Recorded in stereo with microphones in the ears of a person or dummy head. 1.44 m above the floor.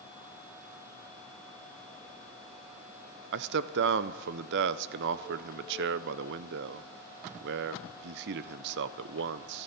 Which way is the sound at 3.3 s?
65° right (ahead or behind).